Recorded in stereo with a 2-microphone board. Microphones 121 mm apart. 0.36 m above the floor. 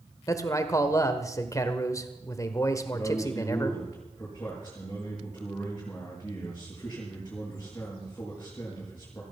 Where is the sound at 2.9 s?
20° left (ahead or behind), 6.5 m.